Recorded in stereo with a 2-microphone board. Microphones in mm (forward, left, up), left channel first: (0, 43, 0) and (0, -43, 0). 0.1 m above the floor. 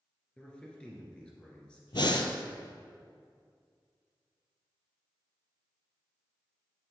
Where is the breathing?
65° left (ahead or behind), 0.7 m.